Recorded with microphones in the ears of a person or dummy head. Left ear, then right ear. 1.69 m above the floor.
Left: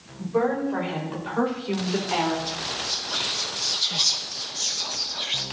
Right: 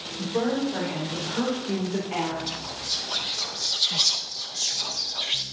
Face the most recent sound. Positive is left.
turn(degrees=0)  # may be behind; listen again after turning